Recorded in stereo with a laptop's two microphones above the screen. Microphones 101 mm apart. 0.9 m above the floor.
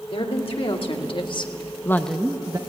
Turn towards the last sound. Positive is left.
turn(degrees=-40)  # may be behind; listen again after turning